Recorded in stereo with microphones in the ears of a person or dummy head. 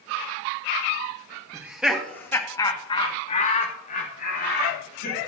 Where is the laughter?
10° right (ahead or behind), 1.4 m; by 5.2 s 60° left (ahead or behind), 3 m.